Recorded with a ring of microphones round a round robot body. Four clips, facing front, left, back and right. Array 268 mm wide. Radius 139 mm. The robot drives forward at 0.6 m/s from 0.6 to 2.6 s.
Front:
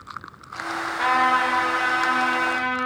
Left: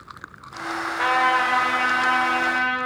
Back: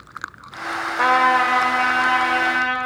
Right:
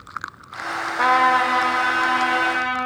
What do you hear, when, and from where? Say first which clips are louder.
1.0 s a trumpet: right 4 dB, back 4 dB; 150° right, 0.8 m; by 2.8 s 170° right, 1.6 m